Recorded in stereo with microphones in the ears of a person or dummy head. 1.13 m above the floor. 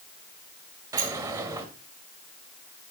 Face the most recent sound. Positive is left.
turn(degrees=-15)  # may be behind; listen again after turning